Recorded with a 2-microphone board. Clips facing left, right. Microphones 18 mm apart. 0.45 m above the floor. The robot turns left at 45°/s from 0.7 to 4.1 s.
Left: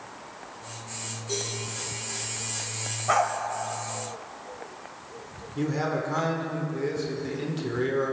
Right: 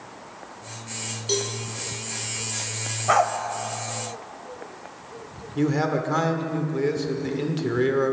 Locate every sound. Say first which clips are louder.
1.3 s a cowbell: right 6 dB; 50° right (ahead or behind), 2.5 m; by 1.5 s 60° right (ahead or behind), 2.5 m
3.1 s a dog barking: right 4 dB; 10° right (ahead or behind), 0.8 m; by 3.3 s 20° right (ahead or behind), 0.8 m
5.5 s a man speaking: right 5 dB; 25° right (ahead or behind), 1.2 m